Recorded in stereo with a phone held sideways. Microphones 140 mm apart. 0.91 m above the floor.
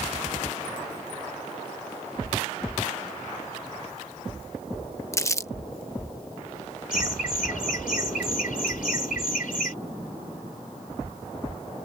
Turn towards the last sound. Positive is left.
turn(degrees=80)